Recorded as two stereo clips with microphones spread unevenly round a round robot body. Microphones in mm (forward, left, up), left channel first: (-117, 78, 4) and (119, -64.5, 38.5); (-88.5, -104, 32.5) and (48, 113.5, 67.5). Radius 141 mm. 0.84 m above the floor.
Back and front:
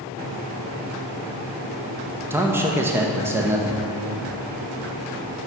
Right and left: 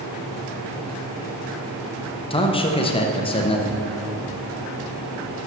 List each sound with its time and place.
2.3 s a man speaking: 120° right, 0.8 m